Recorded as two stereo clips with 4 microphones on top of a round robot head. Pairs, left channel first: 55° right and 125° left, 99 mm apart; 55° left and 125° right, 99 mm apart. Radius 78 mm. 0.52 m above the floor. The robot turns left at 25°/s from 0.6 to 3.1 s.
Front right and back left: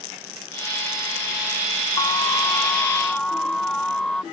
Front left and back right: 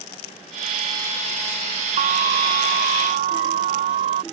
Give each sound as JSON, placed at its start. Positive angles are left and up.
{"t": 2.0, "sound": "an alarm", "azimuth_deg": -110}